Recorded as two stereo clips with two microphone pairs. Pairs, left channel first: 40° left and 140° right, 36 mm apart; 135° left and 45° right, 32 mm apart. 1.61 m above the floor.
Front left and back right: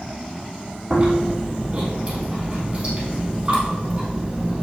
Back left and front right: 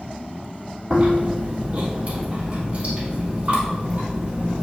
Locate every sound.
0.9 s chewing: 85° right, 3.5 m